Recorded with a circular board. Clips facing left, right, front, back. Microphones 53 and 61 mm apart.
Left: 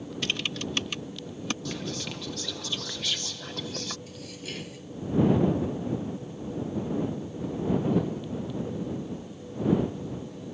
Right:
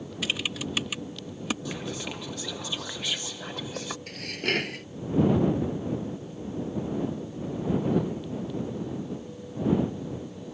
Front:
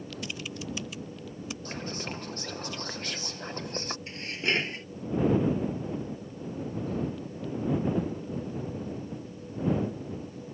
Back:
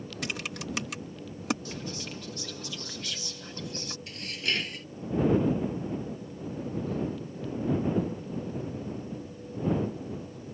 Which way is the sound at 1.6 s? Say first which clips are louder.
Even, front 2 dB; 20° right.